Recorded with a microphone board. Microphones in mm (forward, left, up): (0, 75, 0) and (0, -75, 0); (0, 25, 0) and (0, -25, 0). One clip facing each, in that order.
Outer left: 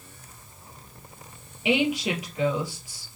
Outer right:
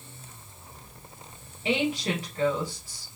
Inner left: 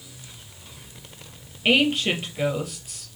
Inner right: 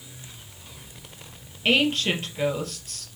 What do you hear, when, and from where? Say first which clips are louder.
1.6 s a woman speaking: outer left 3 dB, inner left 2 dB; 10° left (ahead or behind), 3 m